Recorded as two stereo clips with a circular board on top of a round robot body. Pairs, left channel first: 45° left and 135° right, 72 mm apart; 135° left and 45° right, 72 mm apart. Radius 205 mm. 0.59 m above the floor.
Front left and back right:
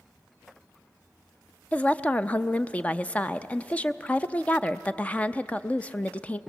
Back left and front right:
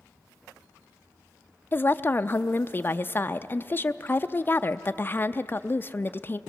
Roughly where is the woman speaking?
Left.